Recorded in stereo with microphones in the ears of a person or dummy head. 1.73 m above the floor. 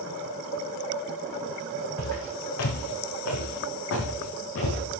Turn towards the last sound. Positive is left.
turn(degrees=70)  # may be behind; listen again after turning